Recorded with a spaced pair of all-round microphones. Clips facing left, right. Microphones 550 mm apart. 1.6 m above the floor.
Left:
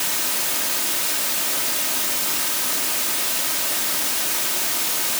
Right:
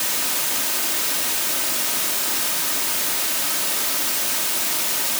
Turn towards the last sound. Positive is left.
No sound to turn to.